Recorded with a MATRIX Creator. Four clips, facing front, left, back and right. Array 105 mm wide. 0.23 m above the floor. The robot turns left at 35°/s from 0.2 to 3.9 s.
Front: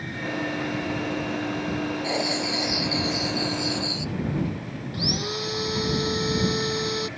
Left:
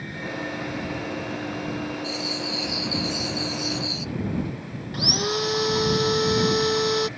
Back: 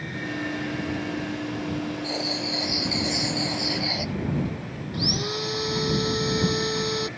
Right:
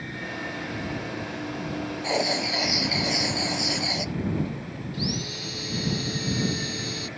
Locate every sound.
2.0 s writing: 65° right; by 4.1 s 130° right
4.9 s sawing: 90° left